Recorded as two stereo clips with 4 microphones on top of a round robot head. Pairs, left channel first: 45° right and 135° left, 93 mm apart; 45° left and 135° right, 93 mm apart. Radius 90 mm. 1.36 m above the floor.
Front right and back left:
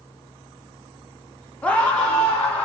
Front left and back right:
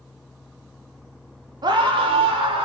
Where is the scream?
115° right, 0.6 m; by 2.6 s 125° right, 1.9 m.